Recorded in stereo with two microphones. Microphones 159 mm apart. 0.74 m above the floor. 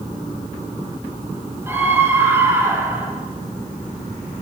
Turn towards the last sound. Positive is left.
turn(degrees=-15)  # may be behind; listen again after turning